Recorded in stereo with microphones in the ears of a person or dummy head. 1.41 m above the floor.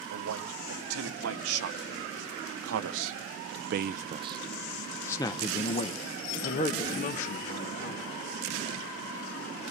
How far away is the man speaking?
About 2.5 m.